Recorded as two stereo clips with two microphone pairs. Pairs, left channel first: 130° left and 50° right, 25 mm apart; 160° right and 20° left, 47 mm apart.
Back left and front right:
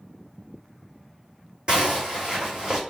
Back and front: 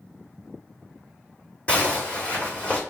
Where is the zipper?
100° right, 1.6 m.